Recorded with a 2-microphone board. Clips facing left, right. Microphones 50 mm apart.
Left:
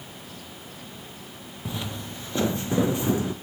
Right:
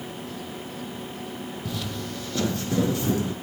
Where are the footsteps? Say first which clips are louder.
Left 1 dB; 25° left (ahead or behind), 0.9 m; by 3.3 s 20° left (ahead or behind), 1.8 m.